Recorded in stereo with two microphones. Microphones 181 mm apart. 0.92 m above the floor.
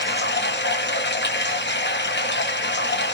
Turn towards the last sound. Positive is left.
turn(degrees=70)  # may be behind; listen again after turning